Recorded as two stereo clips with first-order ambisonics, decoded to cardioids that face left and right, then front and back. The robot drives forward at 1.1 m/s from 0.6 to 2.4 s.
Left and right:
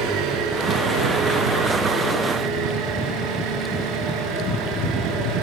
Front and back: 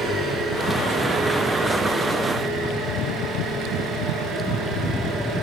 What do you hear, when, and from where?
0.0 s an engine running: 115° right, 10 m; by 5.4 s 125° right, 11 m